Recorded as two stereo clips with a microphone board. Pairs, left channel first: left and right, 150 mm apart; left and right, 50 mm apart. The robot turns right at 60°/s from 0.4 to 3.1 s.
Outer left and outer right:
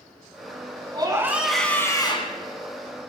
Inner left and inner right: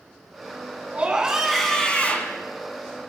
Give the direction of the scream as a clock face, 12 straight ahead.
1 o'clock.